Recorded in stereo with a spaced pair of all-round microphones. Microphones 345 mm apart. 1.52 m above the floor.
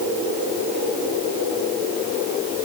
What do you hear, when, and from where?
Only background noise.